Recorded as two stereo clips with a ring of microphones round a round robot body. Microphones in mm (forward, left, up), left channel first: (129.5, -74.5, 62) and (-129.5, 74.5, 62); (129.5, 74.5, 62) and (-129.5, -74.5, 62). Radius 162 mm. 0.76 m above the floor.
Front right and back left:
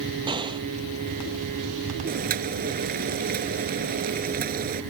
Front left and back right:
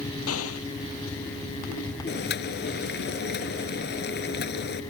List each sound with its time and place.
0.3 s an explosion: 75° left
2.1 s boiling: 90° left